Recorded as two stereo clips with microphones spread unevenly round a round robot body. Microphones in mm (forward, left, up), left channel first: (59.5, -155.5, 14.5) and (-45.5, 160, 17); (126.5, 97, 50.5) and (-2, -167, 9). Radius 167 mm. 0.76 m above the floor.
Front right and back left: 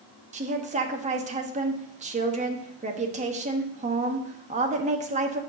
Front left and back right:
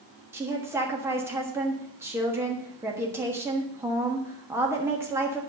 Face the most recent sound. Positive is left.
turn(degrees=170)